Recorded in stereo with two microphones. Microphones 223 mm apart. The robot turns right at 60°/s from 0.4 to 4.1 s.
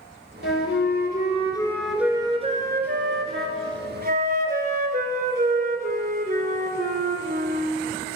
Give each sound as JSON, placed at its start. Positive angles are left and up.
{"t": 0.4, "sound": "a flute", "azimuth_deg": 90, "distance_m": 0.8}